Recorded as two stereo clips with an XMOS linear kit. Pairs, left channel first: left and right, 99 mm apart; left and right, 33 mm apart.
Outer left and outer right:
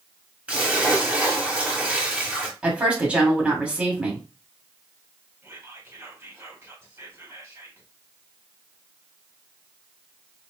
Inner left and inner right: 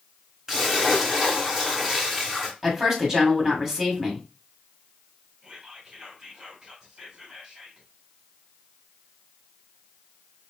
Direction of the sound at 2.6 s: 15° right (ahead or behind).